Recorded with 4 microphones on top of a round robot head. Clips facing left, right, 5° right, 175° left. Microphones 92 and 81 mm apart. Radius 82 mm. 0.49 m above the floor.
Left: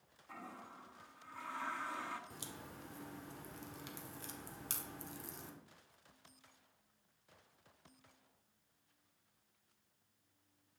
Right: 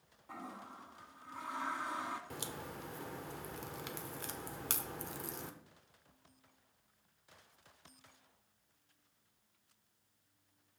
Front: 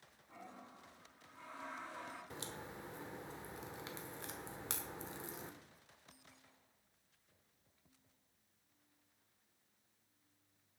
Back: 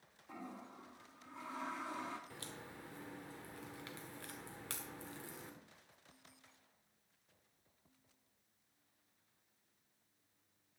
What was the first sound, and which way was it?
A toilet flushing, 160° right.